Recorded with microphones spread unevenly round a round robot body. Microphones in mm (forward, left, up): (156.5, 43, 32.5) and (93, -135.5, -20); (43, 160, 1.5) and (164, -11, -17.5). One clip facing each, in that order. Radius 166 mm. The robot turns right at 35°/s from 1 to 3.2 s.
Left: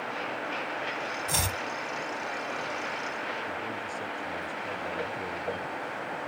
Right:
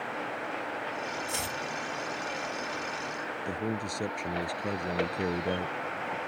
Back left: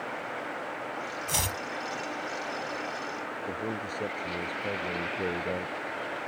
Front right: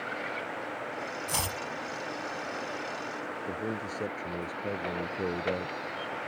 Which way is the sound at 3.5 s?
140° right.